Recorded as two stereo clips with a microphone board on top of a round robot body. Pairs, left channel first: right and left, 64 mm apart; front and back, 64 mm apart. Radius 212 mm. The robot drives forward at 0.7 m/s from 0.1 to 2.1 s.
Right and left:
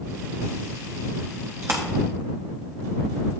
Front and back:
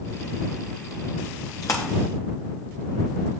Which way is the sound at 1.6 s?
40° left.